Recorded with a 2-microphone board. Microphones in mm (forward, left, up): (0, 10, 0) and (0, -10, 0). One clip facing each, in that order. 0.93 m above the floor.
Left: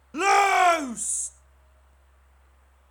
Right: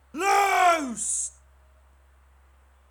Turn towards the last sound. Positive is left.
turn(degrees=-20)  # may be behind; listen again after turning